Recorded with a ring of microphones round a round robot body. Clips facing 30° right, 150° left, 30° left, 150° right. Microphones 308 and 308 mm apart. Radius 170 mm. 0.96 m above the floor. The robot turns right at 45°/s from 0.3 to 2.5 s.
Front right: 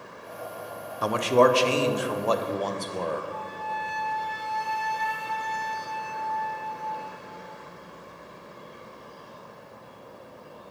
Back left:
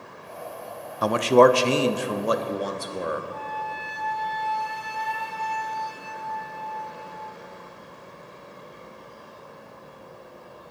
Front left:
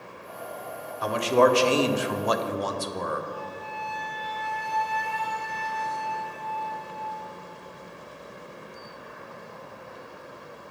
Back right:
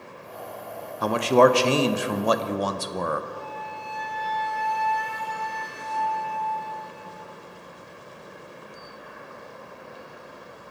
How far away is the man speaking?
About 0.5 m.